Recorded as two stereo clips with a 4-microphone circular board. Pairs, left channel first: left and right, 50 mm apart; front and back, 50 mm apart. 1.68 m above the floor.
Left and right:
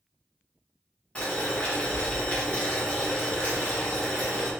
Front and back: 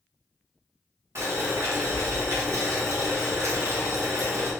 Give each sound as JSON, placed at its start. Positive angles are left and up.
{"t": 1.1, "sound": "boiling", "azimuth_deg": 155, "distance_m": 1.2}